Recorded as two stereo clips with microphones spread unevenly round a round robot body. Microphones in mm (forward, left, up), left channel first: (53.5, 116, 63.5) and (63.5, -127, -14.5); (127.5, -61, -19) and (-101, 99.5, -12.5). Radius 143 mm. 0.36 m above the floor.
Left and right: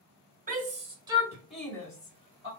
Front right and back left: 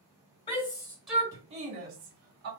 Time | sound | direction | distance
0.5 | a shout | 95° right | 1.4 m